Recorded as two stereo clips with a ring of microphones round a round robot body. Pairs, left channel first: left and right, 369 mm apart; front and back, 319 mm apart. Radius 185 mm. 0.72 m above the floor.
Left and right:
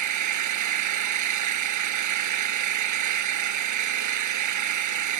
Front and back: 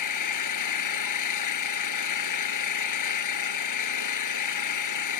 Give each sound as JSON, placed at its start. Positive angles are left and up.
{"t": 0.0, "sound": "an engine running", "azimuth_deg": -45}